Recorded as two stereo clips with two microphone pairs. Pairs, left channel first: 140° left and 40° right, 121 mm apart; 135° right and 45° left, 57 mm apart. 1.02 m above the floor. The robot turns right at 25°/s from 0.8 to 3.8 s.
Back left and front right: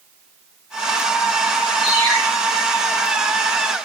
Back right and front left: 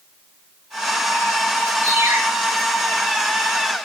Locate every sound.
1.8 s a ringtone: 65° left, 6 m; by 2.2 s 75° left, 6 m